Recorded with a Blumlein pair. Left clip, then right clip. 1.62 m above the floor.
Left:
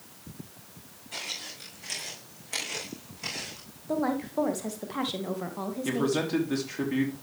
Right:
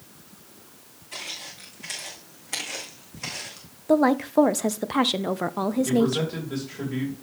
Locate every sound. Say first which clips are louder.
1.1 s footsteps: right 1 dB; 10° right, 5.5 m; by 3.7 s 20° right, 3.5 m
3.9 s a woman speaking: right 9 dB; 25° right, 0.6 m
5.8 s a man speaking: left 1 dB; 15° left, 3 m